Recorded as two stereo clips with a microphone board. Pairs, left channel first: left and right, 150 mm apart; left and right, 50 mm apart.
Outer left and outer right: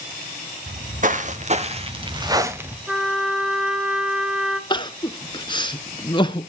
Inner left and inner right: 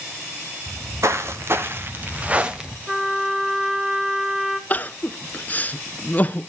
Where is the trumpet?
5° right (ahead or behind), 0.9 m.